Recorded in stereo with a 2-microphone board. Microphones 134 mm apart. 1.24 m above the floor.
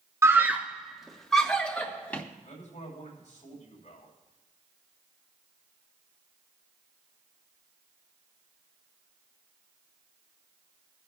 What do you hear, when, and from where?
0.2 s a scream: 20° right (ahead or behind), 0.7 m; by 2.2 s 10° left (ahead or behind), 1.8 m
2.4 s a man speaking: 60° left (ahead or behind), 6 m